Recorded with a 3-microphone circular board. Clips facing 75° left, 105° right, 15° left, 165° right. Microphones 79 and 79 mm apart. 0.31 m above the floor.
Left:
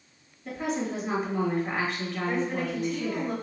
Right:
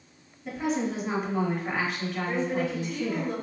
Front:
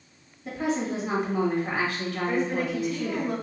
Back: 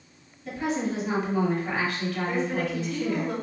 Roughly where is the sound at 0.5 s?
Ahead.